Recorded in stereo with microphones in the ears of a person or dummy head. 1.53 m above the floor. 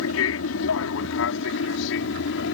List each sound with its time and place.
0.0 s an aircraft: 70° left (ahead or behind); by 2.5 s 60° left (ahead or behind)